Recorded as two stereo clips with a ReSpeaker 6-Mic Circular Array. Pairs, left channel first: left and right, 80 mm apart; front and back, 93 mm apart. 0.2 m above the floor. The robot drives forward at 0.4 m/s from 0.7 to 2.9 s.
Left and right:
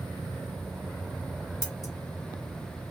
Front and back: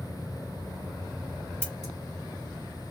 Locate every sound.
1.6 s scissors: 65° left, 1.4 m; by 1.9 s 75° left, 1.4 m